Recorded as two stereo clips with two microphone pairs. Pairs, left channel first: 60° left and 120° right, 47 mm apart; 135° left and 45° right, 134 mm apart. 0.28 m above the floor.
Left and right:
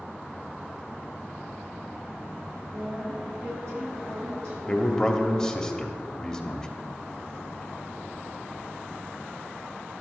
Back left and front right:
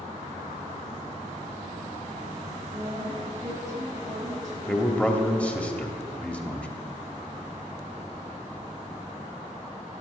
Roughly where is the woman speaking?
Right.